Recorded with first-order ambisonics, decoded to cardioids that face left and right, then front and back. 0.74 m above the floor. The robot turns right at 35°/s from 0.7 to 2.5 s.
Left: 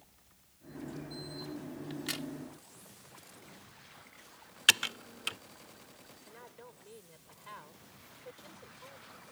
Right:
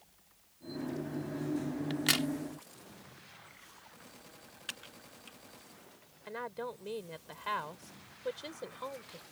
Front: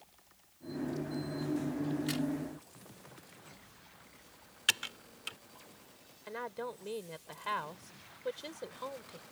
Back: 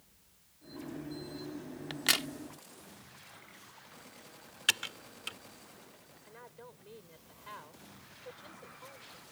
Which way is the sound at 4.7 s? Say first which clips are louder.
Left 19 dB, back 1 dB; 90° left.